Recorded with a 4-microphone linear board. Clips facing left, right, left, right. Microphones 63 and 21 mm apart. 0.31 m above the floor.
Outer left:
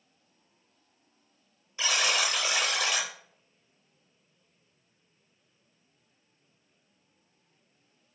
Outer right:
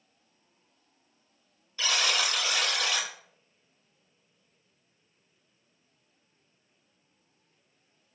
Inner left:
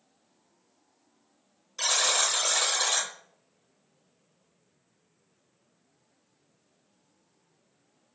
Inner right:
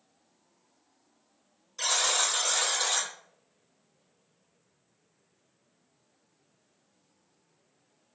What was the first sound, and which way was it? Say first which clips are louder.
A buzzer: outer left 1 dB, inner left 2 dB; 20° left (ahead or behind).